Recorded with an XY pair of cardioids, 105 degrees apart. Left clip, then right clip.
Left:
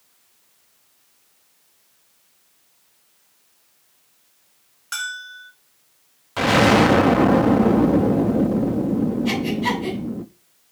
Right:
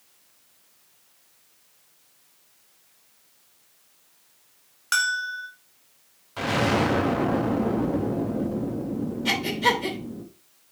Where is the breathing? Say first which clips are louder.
Right 6 dB; 55° right, 3.5 m.